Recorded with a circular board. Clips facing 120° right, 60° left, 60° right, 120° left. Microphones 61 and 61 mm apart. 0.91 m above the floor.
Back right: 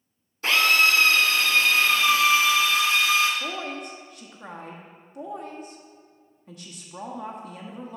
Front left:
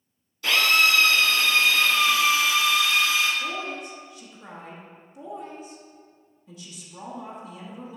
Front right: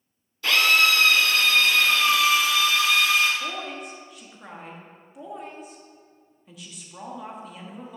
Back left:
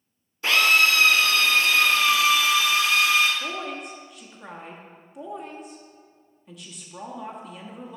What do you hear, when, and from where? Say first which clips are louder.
0.4 s a drill: back right 1 dB, back left 1 dB; 170° right, 2 m
3.4 s a woman speaking: front left 1 dB, back left 1 dB; 150° right, 1.1 m